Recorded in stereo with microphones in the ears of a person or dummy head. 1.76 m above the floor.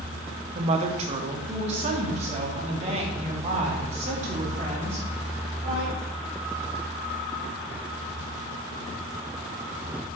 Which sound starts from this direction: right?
A woman speaking, at 0.6 s.